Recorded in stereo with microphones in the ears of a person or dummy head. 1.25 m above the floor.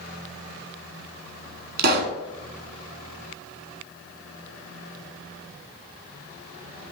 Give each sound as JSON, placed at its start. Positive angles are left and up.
{"t": 1.8, "sound": "a pop", "side_deg": -60, "distance_m": 1.7}